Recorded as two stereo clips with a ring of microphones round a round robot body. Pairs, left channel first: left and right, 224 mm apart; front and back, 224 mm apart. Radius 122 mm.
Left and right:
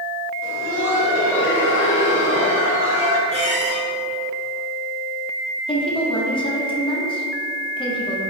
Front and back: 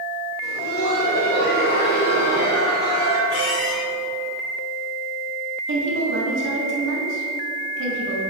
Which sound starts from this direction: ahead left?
Laughter, at 0.4 s.